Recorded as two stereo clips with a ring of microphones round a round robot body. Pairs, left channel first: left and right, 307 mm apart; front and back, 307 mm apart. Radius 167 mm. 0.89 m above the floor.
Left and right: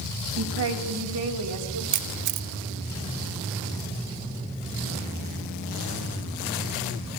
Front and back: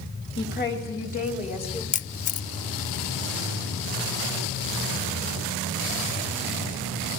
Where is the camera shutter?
65° right, 0.6 m.